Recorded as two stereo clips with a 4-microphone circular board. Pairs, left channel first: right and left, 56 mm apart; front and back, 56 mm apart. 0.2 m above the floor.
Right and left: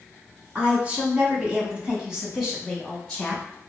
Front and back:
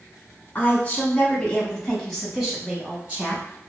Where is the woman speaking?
35° left, 1.5 m; by 3.4 s 170° right, 1.2 m.